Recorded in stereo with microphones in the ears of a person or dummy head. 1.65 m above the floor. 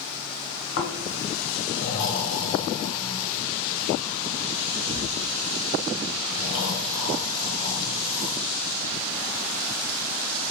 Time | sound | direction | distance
0.8 | snoring | 75° left (ahead or behind) | 1.6 m